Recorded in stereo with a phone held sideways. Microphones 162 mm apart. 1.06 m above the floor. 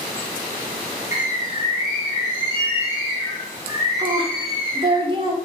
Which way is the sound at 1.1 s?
15° right (ahead or behind).